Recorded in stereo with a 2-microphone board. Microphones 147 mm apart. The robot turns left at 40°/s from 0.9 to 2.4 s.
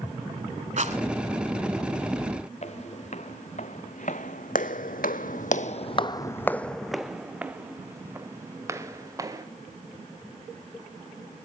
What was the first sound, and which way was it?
A rattle, 55° right (ahead or behind).